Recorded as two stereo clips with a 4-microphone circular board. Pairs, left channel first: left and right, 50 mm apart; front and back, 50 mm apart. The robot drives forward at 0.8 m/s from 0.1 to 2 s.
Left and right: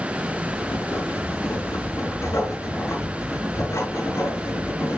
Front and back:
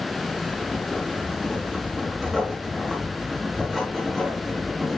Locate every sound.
0.6 s writing: 80° left, 3.5 m; by 5.0 s 100° left, 3.5 m